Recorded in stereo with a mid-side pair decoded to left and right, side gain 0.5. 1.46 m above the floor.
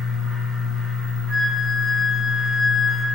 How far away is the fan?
About 2.0 m.